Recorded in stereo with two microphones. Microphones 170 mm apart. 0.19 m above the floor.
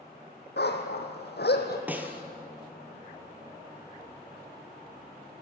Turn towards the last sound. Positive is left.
turn(degrees=-10)  # may be behind; listen again after turning